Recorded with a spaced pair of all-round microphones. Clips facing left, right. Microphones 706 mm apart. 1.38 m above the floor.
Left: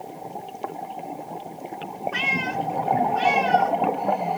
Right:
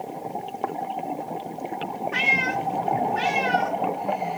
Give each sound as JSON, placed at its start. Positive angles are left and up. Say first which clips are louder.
{"t": 2.1, "sound": "a cat meowing", "louder": "even", "side_deg": -50}